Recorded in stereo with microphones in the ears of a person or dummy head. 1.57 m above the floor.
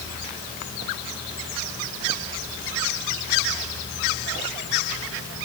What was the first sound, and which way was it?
Only background noise.